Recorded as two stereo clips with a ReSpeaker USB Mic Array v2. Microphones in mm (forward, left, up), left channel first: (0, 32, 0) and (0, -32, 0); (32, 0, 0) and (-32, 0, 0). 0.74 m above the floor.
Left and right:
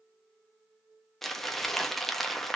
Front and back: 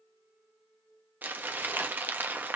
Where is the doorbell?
No doorbell in this recording.